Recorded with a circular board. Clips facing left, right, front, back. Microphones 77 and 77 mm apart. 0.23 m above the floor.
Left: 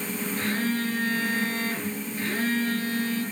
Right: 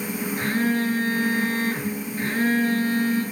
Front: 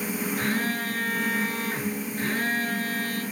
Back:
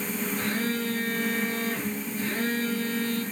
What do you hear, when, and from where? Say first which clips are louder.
0.4 s a phone buzzing: right 5 dB, front 1 dB; 35° right, 5 m